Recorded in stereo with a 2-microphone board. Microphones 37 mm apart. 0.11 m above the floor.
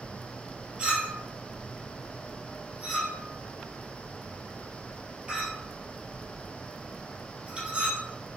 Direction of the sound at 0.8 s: 25° right (ahead or behind).